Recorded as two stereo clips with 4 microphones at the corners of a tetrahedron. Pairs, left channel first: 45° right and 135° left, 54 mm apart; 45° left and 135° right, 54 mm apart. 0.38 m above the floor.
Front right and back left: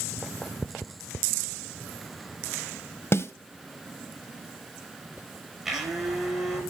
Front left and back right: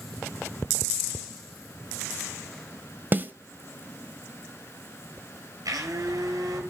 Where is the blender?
145° right, 6 m.